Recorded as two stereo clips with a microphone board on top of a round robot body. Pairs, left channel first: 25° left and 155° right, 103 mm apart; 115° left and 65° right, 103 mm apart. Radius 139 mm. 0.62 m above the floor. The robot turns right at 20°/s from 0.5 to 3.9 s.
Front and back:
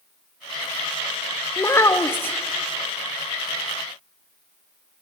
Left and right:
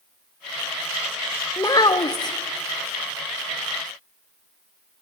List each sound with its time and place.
1.6 s a child speaking: 70° left, 0.9 m; by 2.4 s 85° left, 0.9 m